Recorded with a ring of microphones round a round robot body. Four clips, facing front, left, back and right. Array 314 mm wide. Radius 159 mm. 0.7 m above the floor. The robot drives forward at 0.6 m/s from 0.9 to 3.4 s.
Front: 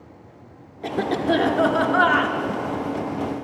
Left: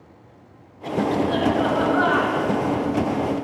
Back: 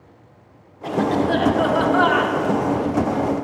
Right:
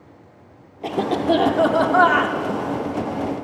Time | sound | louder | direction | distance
0.8 | a cough | right 2 dB, back 3 dB | 55° right | 2 m